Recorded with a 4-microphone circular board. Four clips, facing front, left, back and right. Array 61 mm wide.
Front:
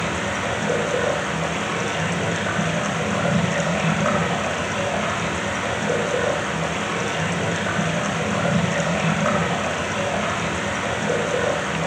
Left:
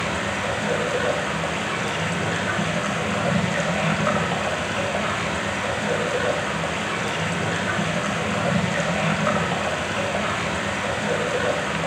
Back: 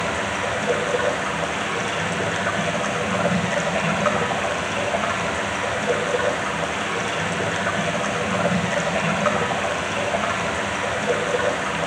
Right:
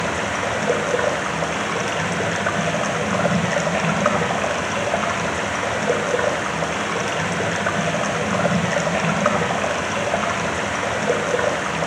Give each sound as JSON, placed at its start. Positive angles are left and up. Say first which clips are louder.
{"t": 0.0, "sound": "running water", "louder": "right 2 dB, even", "azimuth_deg": -95, "distance_m": 6.5}